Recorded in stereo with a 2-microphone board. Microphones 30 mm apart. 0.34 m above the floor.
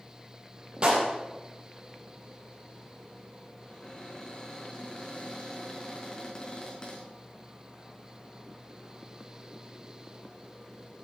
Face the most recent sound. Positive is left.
turn(degrees=30)  # may be behind; listen again after turning